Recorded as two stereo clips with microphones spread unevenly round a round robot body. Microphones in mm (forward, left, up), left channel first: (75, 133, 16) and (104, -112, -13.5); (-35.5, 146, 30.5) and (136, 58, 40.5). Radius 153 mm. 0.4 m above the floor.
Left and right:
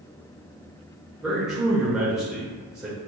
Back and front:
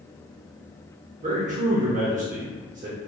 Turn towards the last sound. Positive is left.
turn(degrees=-5)